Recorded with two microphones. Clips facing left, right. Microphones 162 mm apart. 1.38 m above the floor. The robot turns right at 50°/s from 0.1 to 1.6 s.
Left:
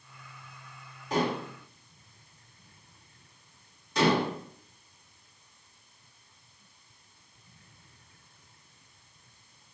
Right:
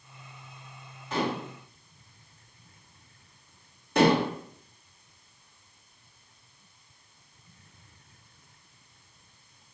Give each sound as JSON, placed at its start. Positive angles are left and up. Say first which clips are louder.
{"t": 1.1, "sound": "dishes clattering", "louder": "left 1 dB", "side_deg": 40, "distance_m": 2.5}
{"t": 4.0, "sound": "dishes clattering", "louder": "right 3 dB", "side_deg": -60, "distance_m": 1.1}